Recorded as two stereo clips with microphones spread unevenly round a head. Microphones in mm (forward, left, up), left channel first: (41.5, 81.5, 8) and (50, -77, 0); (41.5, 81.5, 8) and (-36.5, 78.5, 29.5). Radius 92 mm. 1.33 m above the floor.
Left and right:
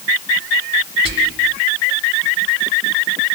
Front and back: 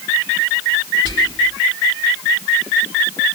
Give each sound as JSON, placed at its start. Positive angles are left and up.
{"t": 1.1, "sound": "whispering", "azimuth_deg": -75, "distance_m": 2.0}